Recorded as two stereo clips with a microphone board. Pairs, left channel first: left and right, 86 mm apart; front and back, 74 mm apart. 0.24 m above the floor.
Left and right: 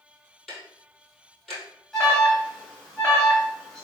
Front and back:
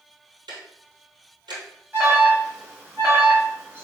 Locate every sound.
0.5 s ticking: 175° left, 1.8 m
1.9 s an alarm: 170° left, 2 m